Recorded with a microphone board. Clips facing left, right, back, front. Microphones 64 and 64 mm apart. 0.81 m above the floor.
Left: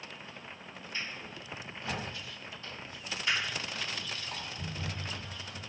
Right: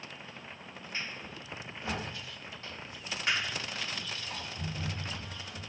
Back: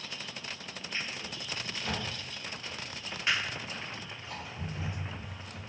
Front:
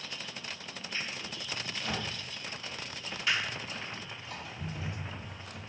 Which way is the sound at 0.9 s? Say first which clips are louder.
Even, even; 125° right.